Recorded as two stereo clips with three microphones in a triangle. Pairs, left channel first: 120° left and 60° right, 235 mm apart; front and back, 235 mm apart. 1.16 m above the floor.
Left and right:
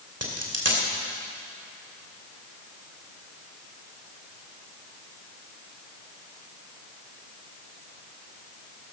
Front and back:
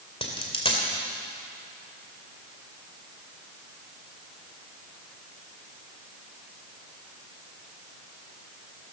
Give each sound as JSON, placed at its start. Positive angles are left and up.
{"t": 0.2, "sound": "a dropped coin", "azimuth_deg": -70, "distance_m": 2.5}